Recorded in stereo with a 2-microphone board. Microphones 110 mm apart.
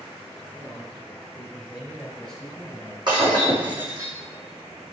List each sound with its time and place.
0.5 s a man speaking: 25° right (ahead or behind), 3 m; by 3.0 s 25° left (ahead or behind), 1.8 m
3.1 s breaking glass: 40° right (ahead or behind), 3.5 m